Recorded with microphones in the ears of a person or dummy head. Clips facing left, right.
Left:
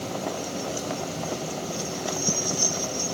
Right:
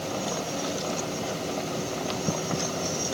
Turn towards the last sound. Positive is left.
No sound to turn to.